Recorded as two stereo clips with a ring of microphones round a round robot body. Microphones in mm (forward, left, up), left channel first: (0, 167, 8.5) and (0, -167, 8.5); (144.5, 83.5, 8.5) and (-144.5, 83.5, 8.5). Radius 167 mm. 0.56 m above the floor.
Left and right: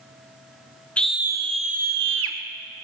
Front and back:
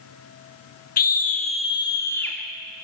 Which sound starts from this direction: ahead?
A scream, at 1.0 s.